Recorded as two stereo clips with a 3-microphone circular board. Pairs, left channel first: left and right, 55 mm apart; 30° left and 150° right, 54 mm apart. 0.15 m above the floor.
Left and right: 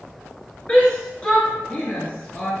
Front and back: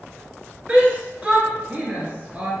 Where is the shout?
150° left, 2.5 m.